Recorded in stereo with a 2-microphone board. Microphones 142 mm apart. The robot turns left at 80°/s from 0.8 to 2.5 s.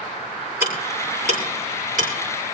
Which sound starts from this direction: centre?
Ticking, at 0.6 s.